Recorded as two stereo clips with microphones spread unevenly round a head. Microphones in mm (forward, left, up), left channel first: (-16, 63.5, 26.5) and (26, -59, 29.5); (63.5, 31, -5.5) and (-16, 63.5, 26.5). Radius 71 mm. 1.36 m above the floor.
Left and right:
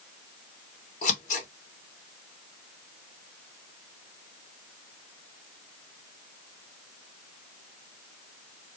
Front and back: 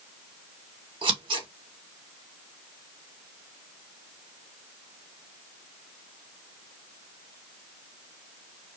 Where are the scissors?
140° left, 2 m.